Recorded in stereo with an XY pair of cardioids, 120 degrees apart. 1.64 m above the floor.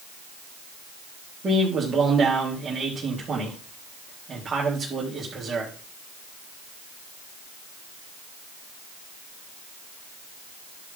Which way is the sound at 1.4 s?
35° right.